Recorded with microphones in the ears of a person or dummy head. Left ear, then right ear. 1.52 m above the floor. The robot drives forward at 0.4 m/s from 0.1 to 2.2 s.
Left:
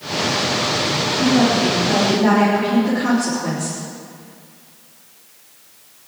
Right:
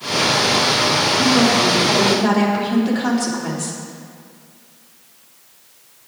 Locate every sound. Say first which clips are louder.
1.2 s a woman speaking: left 1 dB; 25° right (ahead or behind), 3 m; by 3.8 s 20° right (ahead or behind), 3.5 m